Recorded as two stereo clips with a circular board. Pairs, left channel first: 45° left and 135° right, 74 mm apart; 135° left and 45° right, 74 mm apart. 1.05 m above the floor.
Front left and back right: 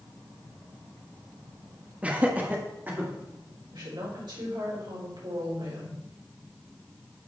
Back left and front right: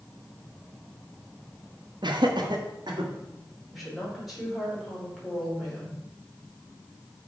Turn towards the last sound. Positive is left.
turn(degrees=-135)